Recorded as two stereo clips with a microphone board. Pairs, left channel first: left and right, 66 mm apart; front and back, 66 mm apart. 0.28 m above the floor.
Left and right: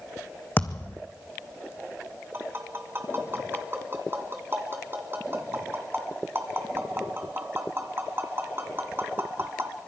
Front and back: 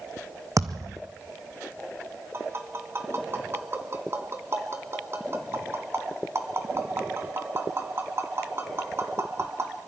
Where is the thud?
150° left, 1.5 m.